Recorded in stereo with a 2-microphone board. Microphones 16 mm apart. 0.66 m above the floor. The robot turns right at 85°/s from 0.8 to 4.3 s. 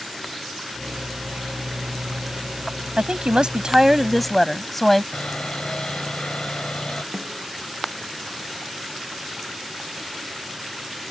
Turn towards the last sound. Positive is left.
turn(degrees=-55)  # may be behind; listen again after turning